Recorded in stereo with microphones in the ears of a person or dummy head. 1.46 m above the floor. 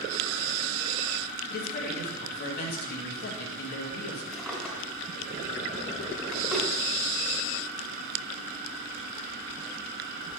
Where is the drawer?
Centre (ahead or behind), 2 m.